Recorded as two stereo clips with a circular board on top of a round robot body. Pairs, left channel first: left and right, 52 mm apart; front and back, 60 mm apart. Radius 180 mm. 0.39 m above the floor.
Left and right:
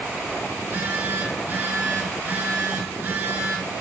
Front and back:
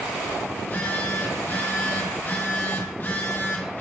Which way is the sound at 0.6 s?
55° right.